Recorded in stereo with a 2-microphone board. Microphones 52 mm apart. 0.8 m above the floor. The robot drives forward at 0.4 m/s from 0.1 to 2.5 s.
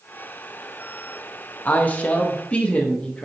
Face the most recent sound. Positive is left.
turn(degrees=25)  # may be behind; listen again after turning